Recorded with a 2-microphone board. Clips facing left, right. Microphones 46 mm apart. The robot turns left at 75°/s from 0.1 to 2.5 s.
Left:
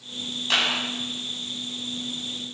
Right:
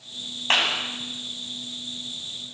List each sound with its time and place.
0.5 s a clap: 45° right (ahead or behind), 7.5 m; by 0.8 s 25° right (ahead or behind), 7.5 m